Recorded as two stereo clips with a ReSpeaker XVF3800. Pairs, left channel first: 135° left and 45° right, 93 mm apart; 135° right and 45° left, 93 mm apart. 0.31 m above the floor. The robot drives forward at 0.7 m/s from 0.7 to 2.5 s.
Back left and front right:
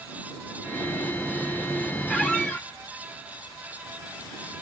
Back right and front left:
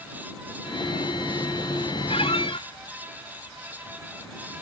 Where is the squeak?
145° right, 1.5 m; by 2.7 s 150° right, 1.8 m.